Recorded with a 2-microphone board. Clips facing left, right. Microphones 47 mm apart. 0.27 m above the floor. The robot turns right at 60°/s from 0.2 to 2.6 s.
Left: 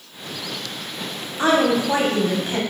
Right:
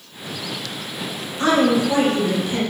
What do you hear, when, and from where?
1.4 s a woman speaking: 40° left, 1.5 m; by 2.6 s 110° left, 1.5 m